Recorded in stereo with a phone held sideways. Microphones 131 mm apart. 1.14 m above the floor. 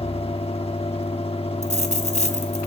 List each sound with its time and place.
0.0 s a fan: 50° left (ahead or behind), 1.1 m
1.6 s a dropped coin: 65° left (ahead or behind), 2 m